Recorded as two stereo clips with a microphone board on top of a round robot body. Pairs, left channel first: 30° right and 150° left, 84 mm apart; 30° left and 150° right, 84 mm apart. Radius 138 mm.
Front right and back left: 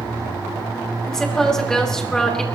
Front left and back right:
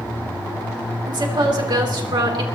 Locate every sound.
1.1 s a woman speaking: 115° right, 3 m